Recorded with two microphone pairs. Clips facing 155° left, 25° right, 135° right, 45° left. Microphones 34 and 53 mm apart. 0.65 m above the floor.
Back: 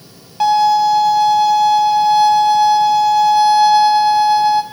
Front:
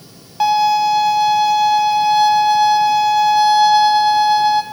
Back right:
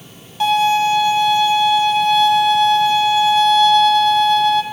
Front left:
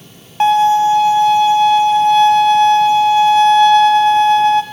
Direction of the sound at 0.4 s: 55° left.